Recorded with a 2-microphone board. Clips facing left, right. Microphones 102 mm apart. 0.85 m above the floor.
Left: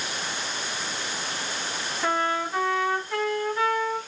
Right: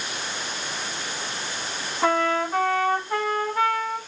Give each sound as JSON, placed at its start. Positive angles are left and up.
{"t": 2.0, "sound": "a trumpet", "side_deg": -50, "distance_m": 1.5}